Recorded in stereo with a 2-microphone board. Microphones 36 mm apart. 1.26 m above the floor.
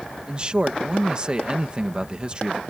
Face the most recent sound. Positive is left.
turn(degrees=-30)  # may be behind; listen again after turning